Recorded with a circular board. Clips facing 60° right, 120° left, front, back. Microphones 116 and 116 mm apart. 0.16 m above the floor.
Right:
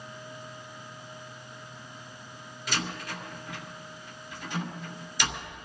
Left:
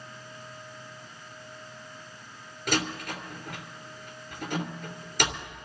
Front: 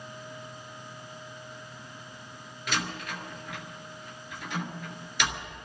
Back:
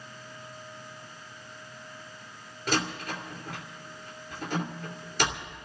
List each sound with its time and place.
2.7 s a door slam: 135° left, 2.5 m